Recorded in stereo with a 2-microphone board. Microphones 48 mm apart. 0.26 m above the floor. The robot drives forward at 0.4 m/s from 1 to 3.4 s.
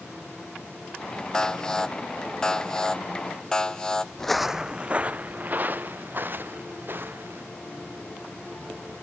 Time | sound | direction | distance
1.3 | an alarm | 15° left (ahead or behind) | ?
4.2 | footsteps | 10° left (ahead or behind) | ?